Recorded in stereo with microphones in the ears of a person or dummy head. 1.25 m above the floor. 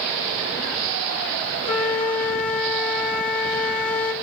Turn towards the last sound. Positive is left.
turn(degrees=45)  # may be behind; listen again after turning